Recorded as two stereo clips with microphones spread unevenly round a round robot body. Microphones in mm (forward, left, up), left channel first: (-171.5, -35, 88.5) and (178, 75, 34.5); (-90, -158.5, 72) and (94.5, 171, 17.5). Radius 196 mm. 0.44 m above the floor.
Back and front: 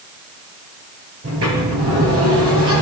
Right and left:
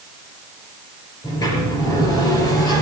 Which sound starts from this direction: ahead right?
A sliding door, at 1.2 s.